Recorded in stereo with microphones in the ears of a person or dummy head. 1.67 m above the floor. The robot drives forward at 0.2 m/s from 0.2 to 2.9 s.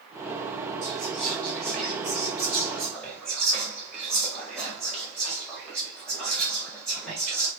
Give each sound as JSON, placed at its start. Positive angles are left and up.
{"t": 0.8, "sound": "whispering", "side_deg": 5, "distance_m": 1.1}